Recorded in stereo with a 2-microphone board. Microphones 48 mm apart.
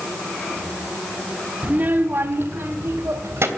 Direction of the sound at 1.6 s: 30° right (ahead or behind).